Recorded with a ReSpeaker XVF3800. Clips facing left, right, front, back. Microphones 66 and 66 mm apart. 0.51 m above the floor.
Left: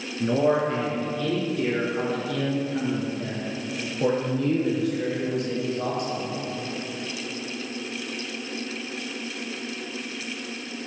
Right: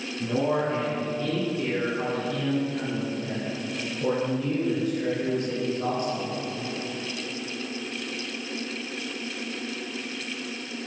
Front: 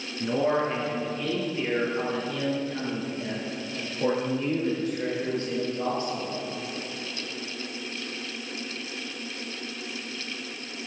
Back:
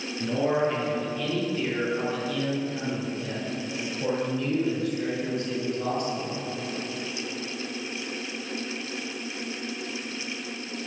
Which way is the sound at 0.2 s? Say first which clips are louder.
Left 4 dB, even; 75° left.